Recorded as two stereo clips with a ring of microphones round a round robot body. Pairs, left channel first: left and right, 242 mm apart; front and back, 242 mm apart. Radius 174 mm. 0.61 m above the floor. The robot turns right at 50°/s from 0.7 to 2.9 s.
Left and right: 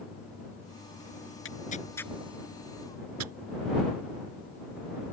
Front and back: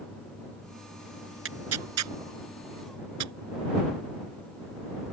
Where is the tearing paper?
145° left; by 3.3 s 140° right.